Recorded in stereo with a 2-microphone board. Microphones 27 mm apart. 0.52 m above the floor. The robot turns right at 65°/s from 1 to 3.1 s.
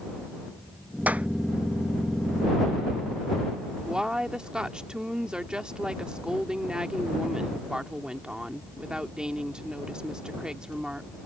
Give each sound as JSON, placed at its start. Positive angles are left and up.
{"t": 1.1, "sound": "a clap", "side_deg": -70}
{"t": 3.9, "sound": "a woman speaking", "side_deg": -30}